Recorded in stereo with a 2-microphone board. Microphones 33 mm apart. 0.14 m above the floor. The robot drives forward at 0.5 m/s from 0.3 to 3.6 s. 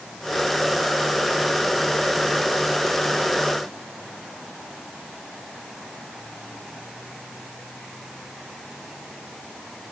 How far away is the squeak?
I don't hear a squeak.